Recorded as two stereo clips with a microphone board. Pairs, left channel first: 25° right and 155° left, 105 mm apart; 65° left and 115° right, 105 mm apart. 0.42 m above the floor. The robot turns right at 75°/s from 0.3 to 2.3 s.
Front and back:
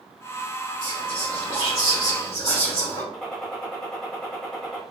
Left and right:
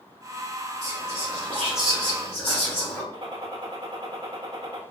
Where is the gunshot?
105° right, 1.8 m.